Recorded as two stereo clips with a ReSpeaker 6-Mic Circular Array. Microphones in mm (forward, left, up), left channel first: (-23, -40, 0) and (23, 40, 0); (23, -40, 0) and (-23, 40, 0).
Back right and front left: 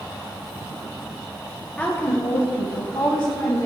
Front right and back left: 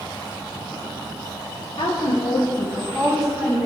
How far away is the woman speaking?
About 1.1 m.